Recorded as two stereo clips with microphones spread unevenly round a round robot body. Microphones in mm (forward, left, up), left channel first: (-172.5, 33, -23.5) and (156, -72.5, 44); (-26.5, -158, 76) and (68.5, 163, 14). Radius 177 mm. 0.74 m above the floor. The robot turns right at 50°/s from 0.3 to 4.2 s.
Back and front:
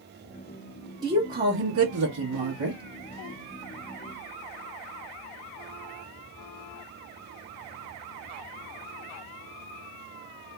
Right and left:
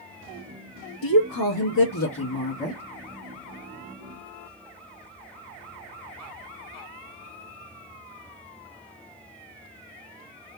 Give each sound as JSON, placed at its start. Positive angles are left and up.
{"t": 1.0, "sound": "a woman speaking", "azimuth_deg": -105, "distance_m": 1.2}